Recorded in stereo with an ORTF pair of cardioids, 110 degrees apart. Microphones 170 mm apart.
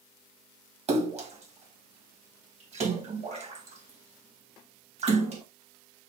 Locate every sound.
0.9 s a splash: 40° right, 1.5 m